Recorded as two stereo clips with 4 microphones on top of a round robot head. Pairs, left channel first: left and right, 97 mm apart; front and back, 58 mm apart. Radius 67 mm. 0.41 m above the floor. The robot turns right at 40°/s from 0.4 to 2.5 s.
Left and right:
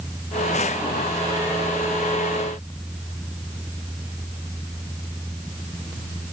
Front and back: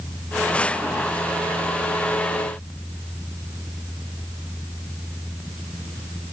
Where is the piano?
No piano in this recording.